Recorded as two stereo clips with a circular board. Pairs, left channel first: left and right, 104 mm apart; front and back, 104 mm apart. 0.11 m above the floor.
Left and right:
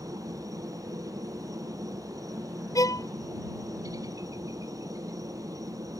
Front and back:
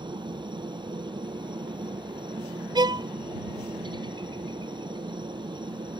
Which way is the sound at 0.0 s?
140° right.